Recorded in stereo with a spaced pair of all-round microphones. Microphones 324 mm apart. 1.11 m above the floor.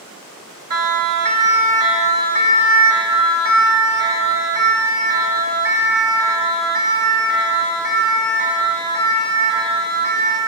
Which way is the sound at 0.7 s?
75° right (ahead or behind).